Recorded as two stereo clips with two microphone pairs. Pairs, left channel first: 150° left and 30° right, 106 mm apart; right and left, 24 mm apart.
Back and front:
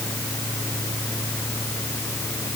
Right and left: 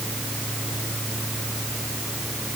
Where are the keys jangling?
I don't hear keys jangling.